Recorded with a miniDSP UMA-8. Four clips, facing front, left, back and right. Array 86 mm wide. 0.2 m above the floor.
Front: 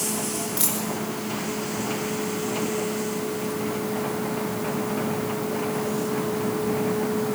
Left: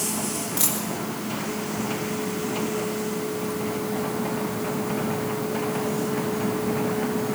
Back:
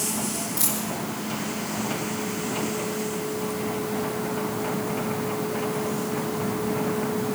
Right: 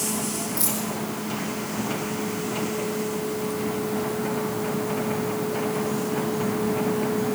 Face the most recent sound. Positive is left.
turn(degrees=50)